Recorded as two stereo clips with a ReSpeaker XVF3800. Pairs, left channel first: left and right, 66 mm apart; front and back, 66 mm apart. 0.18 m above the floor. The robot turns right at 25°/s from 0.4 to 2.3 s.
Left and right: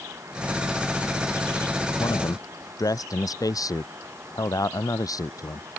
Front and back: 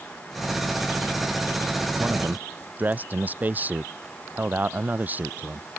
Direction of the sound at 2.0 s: 110° left.